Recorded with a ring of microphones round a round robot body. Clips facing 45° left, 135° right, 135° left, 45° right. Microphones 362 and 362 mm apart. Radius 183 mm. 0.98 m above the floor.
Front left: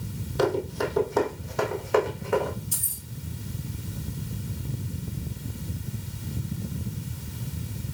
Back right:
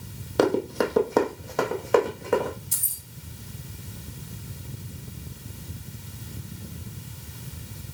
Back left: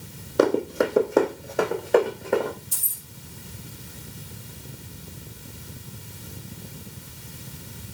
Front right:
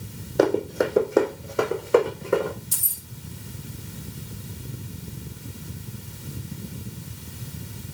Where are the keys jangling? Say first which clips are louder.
Front left 6 dB, front right 4 dB; 75° right, 1.5 m.